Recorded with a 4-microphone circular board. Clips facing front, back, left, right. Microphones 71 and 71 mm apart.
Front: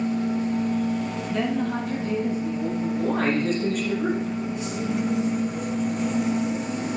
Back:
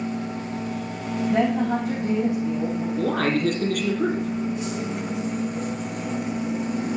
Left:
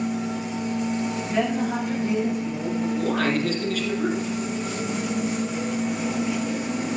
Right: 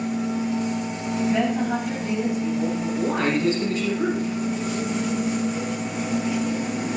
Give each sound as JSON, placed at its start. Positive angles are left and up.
{"t": 1.3, "sound": "a woman speaking", "azimuth_deg": -175, "distance_m": 7.0}
{"t": 3.0, "sound": "a man speaking", "azimuth_deg": -160, "distance_m": 4.0}